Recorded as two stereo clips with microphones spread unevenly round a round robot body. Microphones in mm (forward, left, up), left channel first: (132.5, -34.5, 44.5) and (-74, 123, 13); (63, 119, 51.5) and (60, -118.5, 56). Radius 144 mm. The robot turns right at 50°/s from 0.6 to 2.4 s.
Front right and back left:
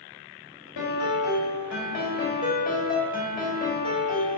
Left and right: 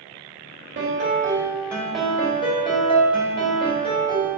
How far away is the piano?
About 2.0 m.